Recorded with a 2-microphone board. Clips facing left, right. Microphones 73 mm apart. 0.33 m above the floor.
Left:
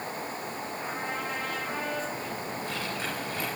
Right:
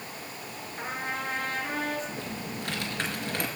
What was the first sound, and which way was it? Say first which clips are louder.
A trumpet: right 3 dB; 45° right (ahead or behind).